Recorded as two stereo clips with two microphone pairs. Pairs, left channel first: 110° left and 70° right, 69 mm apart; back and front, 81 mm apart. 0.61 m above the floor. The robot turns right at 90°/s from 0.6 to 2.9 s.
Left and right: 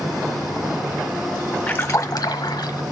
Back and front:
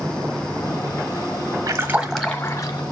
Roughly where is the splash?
Ahead left.